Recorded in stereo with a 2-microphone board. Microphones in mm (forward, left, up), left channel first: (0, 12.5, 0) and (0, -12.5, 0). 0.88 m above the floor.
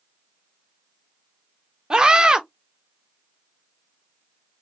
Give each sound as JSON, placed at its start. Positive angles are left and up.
{"t": 1.9, "sound": "a scream", "side_deg": -35, "distance_m": 0.9}